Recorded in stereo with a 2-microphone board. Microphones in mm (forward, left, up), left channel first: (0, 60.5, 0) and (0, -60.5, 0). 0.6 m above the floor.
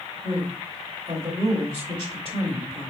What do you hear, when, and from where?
0.2 s a man speaking: 40° right (ahead or behind), 1.9 m